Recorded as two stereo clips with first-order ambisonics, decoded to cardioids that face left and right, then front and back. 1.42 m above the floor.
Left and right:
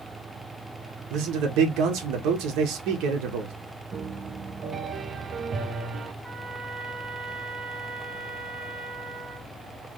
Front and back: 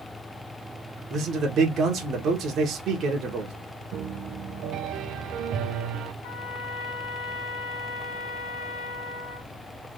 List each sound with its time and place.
1.1 s a man speaking: 120° right, 1.2 m
3.9 s a piano: 150° right, 0.6 m
6.2 s a trumpet: 10° left, 1.7 m